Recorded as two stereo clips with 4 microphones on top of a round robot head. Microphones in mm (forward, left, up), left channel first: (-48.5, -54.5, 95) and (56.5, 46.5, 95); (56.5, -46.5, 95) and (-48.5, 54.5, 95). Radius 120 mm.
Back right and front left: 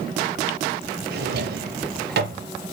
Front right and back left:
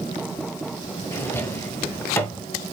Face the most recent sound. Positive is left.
turn(degrees=30)